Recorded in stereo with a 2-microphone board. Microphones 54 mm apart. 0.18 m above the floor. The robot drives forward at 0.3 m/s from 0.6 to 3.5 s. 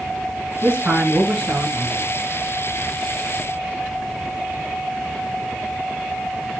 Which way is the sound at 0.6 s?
35° right (ahead or behind).